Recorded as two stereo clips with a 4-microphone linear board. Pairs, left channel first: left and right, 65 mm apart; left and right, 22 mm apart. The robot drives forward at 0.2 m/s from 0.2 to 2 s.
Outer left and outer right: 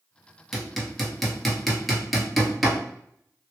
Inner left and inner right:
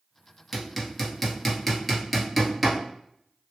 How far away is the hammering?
About 0.9 m.